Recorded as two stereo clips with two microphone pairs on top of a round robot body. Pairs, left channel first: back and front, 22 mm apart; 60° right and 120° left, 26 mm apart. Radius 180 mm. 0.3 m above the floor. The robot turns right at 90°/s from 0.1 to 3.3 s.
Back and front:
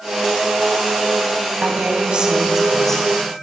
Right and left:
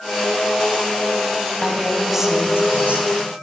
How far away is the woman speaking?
About 4 m.